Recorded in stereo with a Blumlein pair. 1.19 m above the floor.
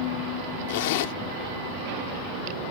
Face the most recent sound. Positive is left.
turn(degrees=50)